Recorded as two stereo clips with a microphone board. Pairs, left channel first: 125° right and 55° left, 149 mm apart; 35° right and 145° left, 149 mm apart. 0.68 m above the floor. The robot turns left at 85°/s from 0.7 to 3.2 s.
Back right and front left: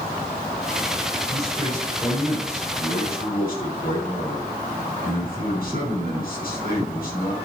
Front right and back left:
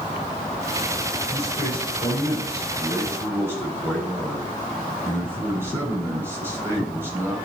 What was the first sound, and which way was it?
A man speaking, 20° left.